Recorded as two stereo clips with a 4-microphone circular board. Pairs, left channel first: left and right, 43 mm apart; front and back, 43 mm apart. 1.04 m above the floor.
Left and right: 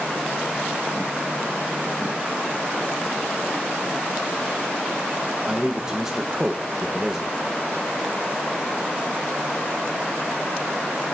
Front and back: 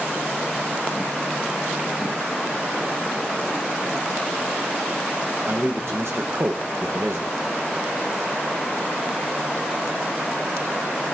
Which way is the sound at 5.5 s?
165° right.